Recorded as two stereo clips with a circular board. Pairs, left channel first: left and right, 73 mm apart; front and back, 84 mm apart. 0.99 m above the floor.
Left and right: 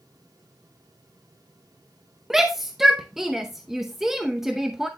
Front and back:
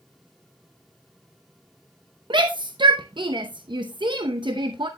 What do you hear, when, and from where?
2.3 s a shout: 175° right, 0.8 m